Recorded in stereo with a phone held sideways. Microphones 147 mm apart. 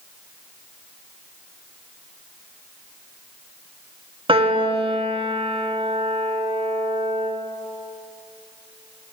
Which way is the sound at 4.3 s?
40° right (ahead or behind).